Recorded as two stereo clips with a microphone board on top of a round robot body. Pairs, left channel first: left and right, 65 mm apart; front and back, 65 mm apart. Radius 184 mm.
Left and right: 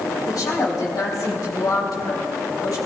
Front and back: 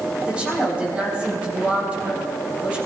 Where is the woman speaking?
110° left, 4 m.